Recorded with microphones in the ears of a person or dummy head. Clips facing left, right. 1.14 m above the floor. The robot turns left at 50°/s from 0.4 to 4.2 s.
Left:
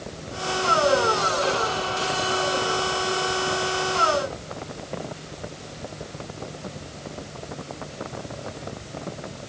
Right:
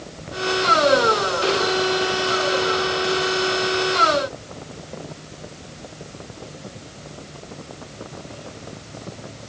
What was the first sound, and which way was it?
Only background noise.